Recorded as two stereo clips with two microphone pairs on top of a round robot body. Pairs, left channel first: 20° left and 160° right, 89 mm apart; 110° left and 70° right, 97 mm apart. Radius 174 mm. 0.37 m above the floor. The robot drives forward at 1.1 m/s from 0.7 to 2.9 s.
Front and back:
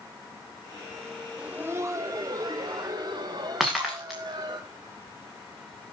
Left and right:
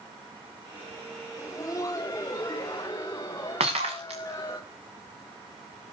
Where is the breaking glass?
75° right, 7 m.